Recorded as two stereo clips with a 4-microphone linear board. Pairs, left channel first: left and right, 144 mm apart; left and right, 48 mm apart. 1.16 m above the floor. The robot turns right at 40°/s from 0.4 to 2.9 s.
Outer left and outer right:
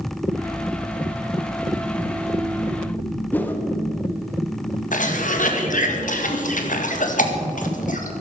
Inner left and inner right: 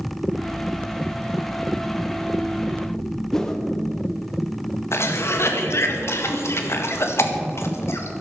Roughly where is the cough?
Left.